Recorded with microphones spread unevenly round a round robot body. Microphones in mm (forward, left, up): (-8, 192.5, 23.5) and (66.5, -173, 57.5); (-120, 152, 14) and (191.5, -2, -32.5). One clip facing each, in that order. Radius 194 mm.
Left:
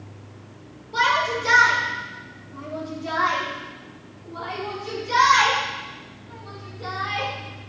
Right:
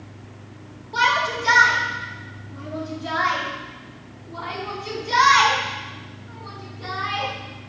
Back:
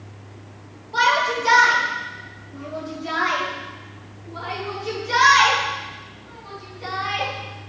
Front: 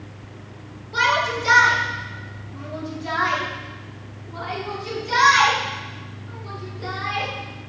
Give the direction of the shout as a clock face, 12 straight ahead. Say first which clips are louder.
Left 1 dB, back 1 dB; 12 o'clock.